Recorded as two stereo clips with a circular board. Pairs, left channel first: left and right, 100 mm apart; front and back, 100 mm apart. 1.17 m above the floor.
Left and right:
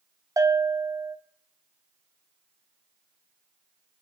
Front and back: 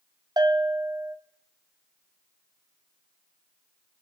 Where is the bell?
140° right, 1.9 m.